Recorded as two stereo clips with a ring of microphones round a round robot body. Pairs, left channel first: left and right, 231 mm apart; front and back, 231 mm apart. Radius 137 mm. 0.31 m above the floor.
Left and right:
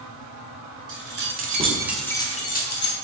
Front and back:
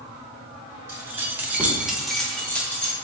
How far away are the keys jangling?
About 1.4 m.